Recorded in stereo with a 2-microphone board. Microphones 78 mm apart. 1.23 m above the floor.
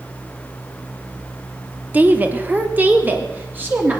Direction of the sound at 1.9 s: 20° right (ahead or behind).